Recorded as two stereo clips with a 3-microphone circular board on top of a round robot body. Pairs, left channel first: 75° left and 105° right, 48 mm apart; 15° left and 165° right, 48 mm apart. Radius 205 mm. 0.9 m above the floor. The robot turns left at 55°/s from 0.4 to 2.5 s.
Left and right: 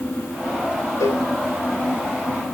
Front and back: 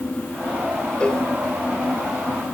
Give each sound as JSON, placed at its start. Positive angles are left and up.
{"t": 1.0, "sound": "a cowbell", "azimuth_deg": 85, "distance_m": 3.0}